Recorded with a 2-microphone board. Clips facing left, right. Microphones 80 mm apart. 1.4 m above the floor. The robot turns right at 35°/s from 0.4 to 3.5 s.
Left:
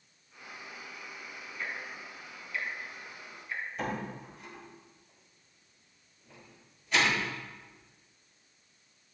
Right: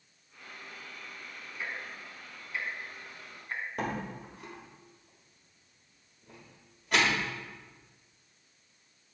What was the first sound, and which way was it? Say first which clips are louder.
Ticking: even; 10° right (ahead or behind).